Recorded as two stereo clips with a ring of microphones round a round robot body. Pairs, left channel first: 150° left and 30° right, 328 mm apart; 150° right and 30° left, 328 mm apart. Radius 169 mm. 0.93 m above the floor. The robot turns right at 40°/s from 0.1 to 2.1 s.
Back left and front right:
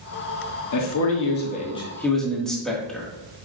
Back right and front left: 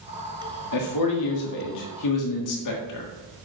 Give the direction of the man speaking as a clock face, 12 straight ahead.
6 o'clock.